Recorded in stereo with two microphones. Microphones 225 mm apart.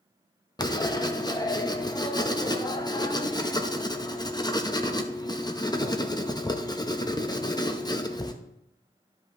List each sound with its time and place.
0.6 s writing: 20° left (ahead or behind), 0.7 m